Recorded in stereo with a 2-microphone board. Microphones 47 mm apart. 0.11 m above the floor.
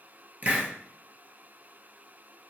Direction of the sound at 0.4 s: 35° right (ahead or behind).